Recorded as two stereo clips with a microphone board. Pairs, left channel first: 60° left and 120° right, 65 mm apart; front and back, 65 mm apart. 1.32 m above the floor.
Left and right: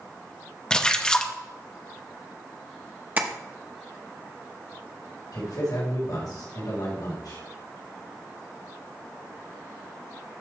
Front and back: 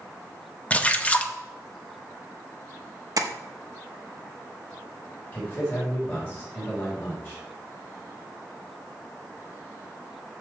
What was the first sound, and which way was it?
A splash, 5° left.